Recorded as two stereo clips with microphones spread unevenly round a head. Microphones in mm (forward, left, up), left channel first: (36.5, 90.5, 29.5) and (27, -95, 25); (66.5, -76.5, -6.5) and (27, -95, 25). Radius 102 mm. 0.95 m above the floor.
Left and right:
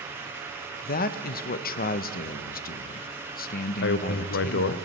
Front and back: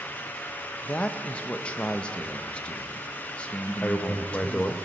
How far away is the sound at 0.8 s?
About 0.6 m.